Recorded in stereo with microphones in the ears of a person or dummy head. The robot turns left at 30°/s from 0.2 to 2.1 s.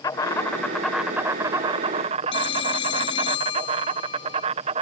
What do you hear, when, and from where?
0.0 s an insect: 20° left; by 4.8 s 35° right
2.3 s a phone ringing: 25° left (ahead or behind)